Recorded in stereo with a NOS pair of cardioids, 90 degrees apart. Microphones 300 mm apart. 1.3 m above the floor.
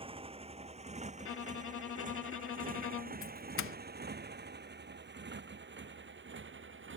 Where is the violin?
45° left.